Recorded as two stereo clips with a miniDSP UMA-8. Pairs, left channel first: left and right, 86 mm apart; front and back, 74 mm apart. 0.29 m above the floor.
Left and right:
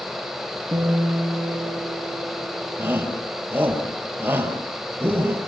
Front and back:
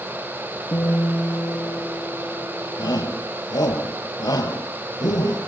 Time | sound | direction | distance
0.7 | a guitar | 50° right | 6 m
2.8 | a shout | 25° right | 5.5 m